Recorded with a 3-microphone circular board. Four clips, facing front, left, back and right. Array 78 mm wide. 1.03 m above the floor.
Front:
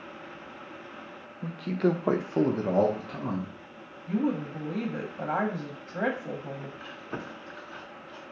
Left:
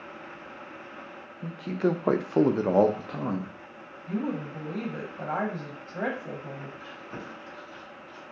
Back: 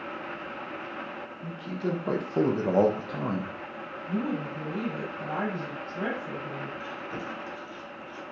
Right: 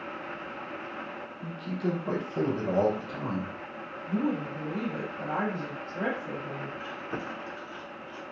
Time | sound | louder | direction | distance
1.4 | a man speaking | left 5 dB, front 6 dB | 30° left | 0.7 m
4.1 | a woman speaking | right 1 dB, front 3 dB | 30° left | 0.7 m
6.8 | chewing | right 5 dB, back 3 dB | 50° right | 0.6 m